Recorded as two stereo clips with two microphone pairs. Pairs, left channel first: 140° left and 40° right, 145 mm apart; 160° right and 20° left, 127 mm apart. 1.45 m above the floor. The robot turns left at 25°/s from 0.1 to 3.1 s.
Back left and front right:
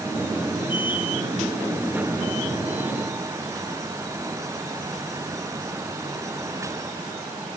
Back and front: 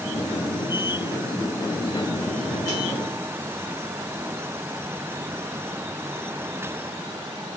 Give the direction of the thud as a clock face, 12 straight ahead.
I don't hear a thud.